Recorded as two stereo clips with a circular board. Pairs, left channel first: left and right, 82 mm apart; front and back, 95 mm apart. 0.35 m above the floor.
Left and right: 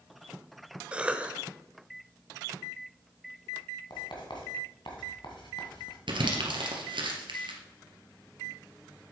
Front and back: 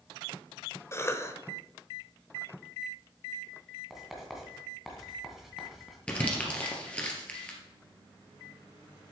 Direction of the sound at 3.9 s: 95° left.